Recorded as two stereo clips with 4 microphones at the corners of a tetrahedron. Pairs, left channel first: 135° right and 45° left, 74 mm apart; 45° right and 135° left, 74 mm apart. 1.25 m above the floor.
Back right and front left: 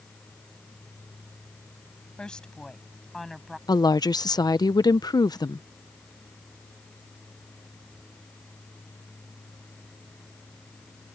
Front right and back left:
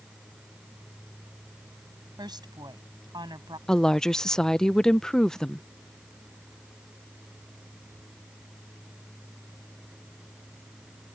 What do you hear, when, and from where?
2.2 s a woman speaking: 145° left; by 3.6 s 135° left
3.7 s a woman speaking: 125° right